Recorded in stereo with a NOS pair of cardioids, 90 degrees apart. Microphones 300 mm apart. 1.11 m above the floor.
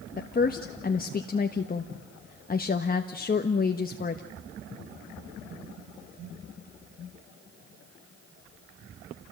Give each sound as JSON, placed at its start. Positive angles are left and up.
{"t": 0.2, "sound": "a woman speaking", "azimuth_deg": 30, "distance_m": 1.3}